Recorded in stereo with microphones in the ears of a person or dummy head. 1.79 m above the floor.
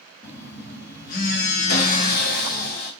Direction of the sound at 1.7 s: 55° left (ahead or behind).